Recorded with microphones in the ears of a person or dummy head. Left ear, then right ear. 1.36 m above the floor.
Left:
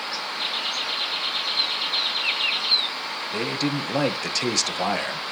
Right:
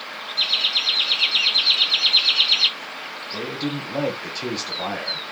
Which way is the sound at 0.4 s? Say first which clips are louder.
Right 9 dB; 80° right.